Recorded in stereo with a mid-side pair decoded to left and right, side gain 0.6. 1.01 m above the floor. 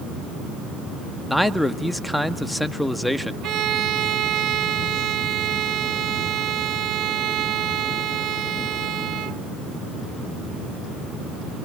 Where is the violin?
55° right, 1.0 m.